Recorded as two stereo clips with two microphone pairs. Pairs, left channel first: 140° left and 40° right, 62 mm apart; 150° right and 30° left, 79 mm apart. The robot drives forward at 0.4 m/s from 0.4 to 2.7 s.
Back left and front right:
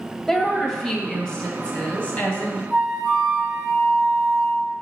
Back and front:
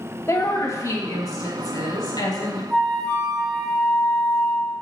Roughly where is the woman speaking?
Behind right.